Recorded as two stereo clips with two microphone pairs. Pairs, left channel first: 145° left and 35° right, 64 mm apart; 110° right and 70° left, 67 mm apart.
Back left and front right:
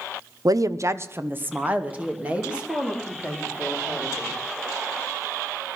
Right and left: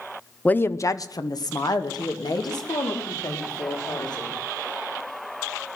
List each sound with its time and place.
0.5 s a woman speaking: 40° right, 0.7 m; by 4.3 s 110° right, 5.5 m